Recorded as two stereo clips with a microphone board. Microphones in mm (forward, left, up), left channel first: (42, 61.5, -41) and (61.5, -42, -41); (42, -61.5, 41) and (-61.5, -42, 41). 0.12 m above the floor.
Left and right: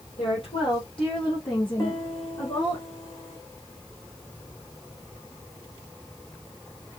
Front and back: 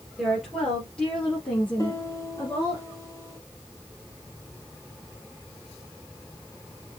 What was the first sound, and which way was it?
A woman speaking, 80° left.